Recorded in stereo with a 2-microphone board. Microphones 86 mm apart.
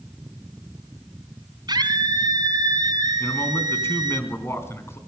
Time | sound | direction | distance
1.7 | a scream | 55° right (ahead or behind) | 2.5 m
3.2 | a man speaking | 30° left (ahead or behind) | 3 m